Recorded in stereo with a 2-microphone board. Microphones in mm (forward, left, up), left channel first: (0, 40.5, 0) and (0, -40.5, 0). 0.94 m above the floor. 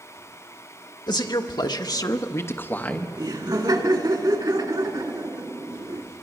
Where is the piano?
No piano in this recording.